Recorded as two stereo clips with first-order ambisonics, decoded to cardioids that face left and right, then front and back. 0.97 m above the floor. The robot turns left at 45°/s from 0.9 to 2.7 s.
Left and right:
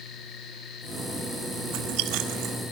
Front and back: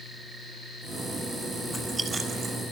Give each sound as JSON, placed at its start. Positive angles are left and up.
{"t": 1.7, "sound": "chewing", "azimuth_deg": -85, "distance_m": 4.0}